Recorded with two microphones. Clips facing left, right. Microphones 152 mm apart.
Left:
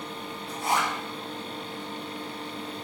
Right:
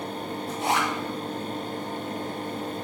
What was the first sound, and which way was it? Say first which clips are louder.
A zipper: right 1 dB; 75° right (ahead or behind).